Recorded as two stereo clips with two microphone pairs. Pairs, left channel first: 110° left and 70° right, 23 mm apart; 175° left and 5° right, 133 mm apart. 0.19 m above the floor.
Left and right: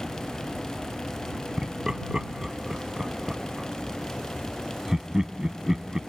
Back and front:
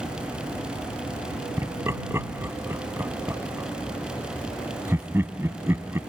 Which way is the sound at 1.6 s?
55° right.